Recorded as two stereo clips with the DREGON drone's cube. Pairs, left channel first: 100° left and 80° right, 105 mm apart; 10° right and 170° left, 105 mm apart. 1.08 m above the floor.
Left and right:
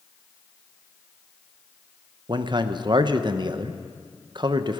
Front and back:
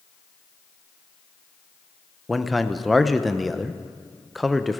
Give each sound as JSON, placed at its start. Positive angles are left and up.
{"t": 2.3, "sound": "a man speaking", "azimuth_deg": -100, "distance_m": 0.7}